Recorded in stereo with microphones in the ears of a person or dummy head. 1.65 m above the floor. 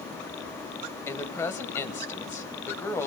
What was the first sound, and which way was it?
A woman speaking, 15° left (ahead or behind).